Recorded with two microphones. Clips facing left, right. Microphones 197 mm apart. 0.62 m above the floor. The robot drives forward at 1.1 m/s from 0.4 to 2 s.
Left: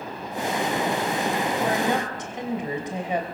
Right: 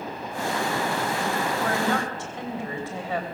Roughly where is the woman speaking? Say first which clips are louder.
Left 1 dB; centre.